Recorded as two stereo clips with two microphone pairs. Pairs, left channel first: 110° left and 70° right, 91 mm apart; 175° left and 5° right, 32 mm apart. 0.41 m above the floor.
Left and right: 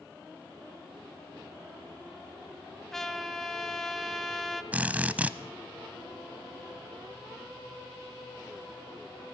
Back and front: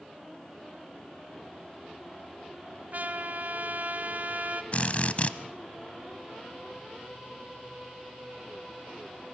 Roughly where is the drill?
Behind right.